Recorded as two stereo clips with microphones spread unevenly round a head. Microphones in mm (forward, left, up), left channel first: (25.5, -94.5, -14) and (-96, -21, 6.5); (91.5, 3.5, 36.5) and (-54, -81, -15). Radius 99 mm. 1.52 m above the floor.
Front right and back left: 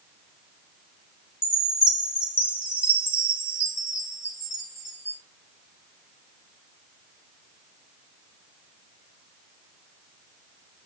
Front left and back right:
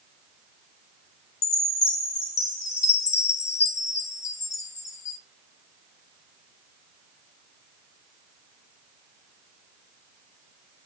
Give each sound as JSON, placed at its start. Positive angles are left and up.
{"t": 1.4, "sound": "a chime", "azimuth_deg": 50, "distance_m": 1.7}